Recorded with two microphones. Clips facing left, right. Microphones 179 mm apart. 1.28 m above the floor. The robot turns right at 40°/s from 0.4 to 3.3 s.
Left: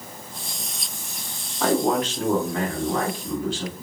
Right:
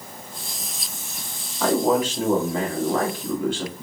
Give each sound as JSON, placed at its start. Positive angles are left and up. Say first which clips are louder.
{"t": 1.6, "sound": "a man speaking", "louder": "right 1 dB", "azimuth_deg": 175, "distance_m": 1.7}